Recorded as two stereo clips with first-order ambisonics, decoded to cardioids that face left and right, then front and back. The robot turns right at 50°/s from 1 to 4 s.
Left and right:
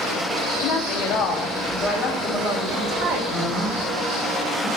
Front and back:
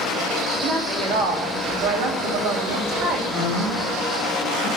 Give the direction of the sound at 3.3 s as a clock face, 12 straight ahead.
1 o'clock.